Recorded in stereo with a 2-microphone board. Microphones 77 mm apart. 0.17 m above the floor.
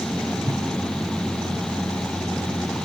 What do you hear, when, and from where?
0.4 s a whoosh: 45° right (ahead or behind), 2.5 m